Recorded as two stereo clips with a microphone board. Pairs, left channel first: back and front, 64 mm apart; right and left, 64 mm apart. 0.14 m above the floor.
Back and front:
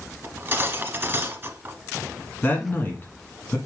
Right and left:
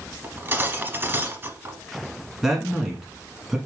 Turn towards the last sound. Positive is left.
turn(degrees=175)